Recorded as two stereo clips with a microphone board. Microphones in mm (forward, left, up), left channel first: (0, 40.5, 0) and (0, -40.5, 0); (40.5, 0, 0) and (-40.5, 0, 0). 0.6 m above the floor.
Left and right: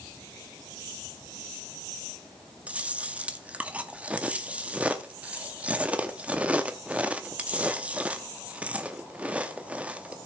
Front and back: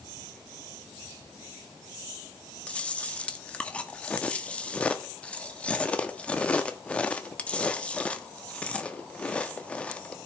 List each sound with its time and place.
2.7 s chewing: 45° right, 1.0 m